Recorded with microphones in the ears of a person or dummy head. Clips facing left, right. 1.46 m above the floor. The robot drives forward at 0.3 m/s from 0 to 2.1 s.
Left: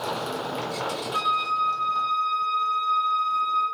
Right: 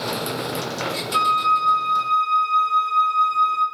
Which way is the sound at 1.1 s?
55° right (ahead or behind).